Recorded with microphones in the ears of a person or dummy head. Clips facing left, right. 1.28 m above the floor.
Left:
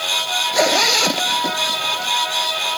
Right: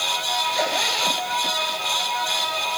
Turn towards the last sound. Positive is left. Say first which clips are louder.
# left 10 dB
turn(degrees=70)  # may be behind; listen again after turning